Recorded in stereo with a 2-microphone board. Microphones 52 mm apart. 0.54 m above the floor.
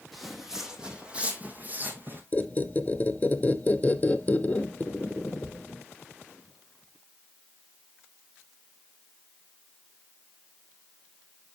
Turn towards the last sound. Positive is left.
turn(degrees=25)  # may be behind; listen again after turning